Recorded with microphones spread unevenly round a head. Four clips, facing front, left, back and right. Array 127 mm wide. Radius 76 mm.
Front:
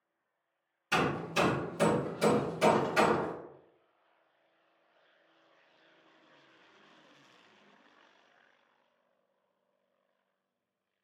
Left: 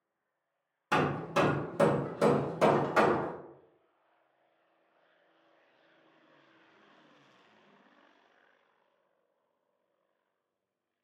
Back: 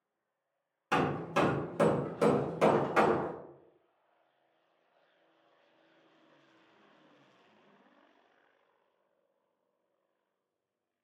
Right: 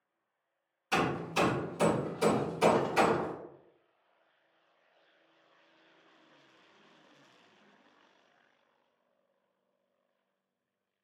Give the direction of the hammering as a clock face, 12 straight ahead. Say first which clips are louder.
Left 2 dB, back 1 dB; 8 o'clock.